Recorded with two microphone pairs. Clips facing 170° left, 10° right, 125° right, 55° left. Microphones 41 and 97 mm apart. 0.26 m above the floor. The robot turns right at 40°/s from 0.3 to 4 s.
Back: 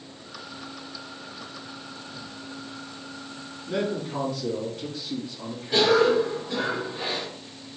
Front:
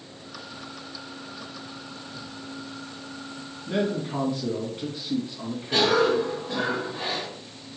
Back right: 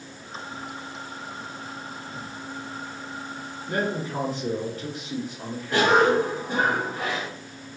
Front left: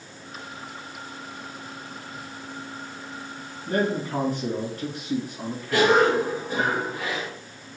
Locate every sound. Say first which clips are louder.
3.7 s a man speaking: front 1 dB, front left 3 dB; 20° left, 2.5 m; by 6.7 s 35° left, 2.5 m
5.7 s a cough: back 2 dB, even; 65° right, 2.5 m